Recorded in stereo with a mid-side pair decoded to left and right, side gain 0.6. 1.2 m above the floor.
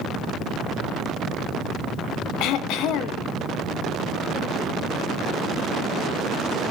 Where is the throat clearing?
65° left, 1.0 m.